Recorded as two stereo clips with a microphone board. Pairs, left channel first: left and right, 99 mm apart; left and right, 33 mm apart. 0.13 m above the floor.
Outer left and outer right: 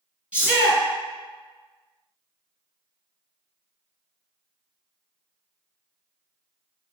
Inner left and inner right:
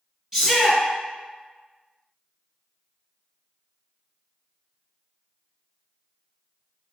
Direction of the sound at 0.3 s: 15° right (ahead or behind).